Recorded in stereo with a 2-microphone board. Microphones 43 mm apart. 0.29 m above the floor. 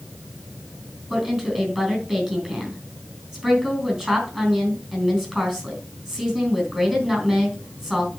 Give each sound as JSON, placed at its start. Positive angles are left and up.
{"t": 1.1, "sound": "a woman speaking", "side_deg": -15, "distance_m": 4.0}